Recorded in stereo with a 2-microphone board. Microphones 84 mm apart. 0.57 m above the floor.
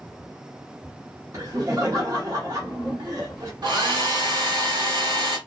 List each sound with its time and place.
1.3 s laughter: 45° right (ahead or behind), 1.0 m
3.6 s a hair dryer: 60° right (ahead or behind), 1.2 m